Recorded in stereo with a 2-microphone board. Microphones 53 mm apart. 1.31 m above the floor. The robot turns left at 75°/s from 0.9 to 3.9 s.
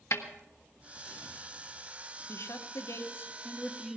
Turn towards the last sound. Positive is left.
turn(degrees=0)